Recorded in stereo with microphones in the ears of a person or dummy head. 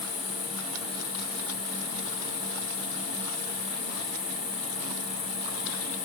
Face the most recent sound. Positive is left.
turn(degrees=55)  # may be behind; listen again after turning